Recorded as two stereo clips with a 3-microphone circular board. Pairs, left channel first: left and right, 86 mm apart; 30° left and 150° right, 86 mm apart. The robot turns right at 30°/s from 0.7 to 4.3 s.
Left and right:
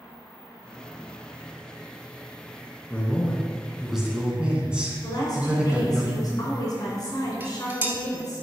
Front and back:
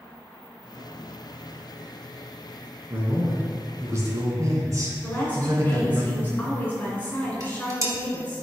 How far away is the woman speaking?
About 2 m.